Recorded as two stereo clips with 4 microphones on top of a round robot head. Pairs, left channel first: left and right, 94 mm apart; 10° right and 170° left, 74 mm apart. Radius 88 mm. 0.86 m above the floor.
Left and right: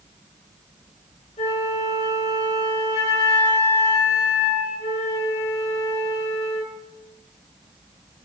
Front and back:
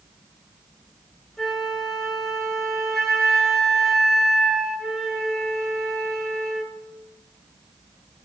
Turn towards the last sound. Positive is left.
turn(degrees=75)